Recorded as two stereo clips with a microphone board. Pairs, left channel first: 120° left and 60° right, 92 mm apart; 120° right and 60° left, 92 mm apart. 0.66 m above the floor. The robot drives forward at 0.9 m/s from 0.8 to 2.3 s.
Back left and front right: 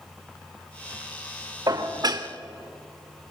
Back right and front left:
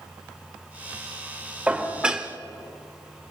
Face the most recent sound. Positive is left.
turn(degrees=-25)